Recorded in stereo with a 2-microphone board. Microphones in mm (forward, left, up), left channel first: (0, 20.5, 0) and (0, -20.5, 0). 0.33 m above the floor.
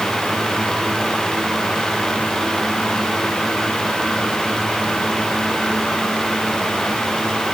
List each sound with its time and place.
Only background noise.